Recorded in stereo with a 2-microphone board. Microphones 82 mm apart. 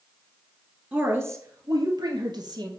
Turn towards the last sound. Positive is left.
turn(degrees=-60)  # may be behind; listen again after turning